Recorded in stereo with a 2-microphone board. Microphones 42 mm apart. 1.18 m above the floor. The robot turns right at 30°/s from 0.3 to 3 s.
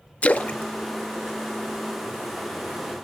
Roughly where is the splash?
Left.